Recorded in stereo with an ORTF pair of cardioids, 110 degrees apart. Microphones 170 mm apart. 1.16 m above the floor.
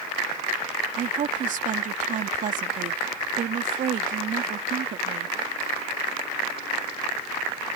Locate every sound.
0.9 s a woman speaking: 50° right